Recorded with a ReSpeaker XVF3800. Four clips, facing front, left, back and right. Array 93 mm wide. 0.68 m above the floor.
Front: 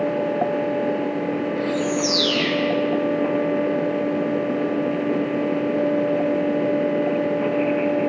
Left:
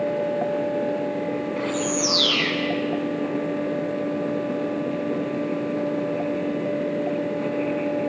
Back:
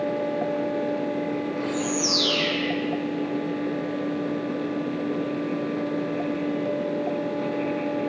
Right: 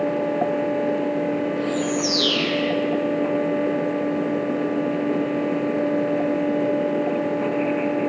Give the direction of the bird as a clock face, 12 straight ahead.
9 o'clock.